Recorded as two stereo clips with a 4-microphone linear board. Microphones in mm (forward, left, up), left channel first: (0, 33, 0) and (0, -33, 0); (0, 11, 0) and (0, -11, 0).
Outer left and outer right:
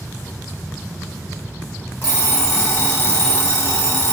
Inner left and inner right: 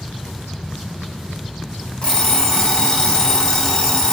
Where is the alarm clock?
40° left (ahead or behind), 1.5 m.